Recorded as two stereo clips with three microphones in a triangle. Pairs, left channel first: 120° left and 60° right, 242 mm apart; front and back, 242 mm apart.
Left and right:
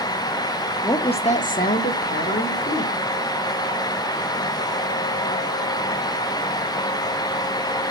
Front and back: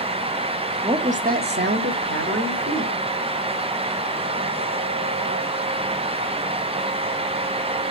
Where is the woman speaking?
165° left, 0.6 m; by 3.0 s 160° left, 1.7 m.